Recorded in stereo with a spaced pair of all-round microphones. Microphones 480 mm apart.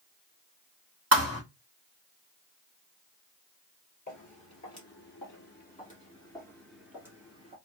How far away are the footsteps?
About 1.9 m.